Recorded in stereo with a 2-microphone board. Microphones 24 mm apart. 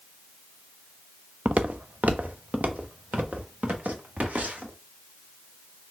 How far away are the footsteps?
About 0.6 m.